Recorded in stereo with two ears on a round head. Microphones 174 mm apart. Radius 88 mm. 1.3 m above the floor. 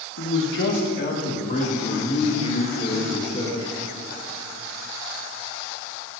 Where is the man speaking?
65° left (ahead or behind), 2.0 m; by 3.7 s 25° left (ahead or behind), 5.5 m.